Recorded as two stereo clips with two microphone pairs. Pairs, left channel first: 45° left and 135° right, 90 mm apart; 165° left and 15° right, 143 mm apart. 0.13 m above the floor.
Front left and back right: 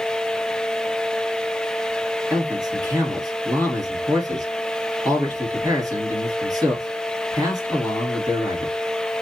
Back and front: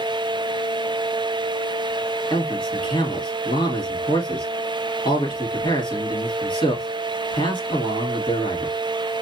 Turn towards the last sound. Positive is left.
turn(degrees=-150)